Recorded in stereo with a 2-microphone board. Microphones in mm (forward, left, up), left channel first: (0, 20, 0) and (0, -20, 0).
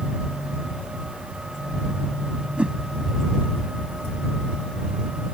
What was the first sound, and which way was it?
A whoosh, 30° right (ahead or behind).